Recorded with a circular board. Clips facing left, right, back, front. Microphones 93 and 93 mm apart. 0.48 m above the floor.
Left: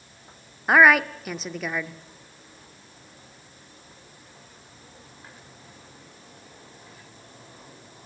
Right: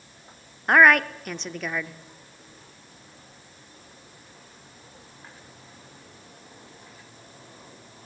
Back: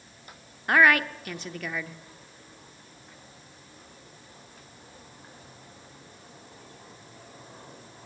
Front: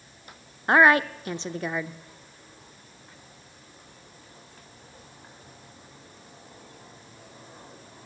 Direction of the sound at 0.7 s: 10° left.